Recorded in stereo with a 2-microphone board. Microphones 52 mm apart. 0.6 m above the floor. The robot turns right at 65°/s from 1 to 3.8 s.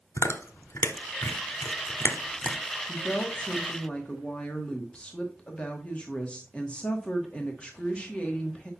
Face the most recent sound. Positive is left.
turn(degrees=20)  # may be behind; listen again after turning